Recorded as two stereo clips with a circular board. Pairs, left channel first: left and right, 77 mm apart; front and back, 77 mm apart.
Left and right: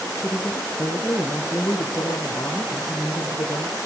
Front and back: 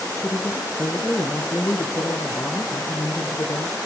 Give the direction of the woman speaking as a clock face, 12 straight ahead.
10 o'clock.